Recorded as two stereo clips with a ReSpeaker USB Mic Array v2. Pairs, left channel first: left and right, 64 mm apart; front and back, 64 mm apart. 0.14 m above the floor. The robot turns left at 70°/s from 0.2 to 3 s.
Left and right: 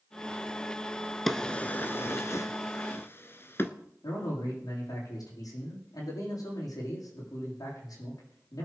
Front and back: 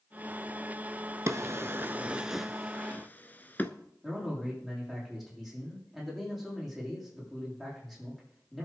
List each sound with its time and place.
1.3 s a drawer: 175° left, 0.9 m; by 3.7 s 50° left, 0.9 m
4.0 s a man speaking: 90° left, 7.5 m